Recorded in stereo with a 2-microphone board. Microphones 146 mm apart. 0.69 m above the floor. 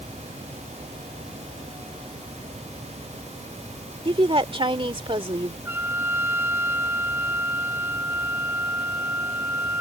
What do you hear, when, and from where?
4.0 s a woman speaking: 35° right (ahead or behind)
5.7 s a trumpet: 15° right (ahead or behind)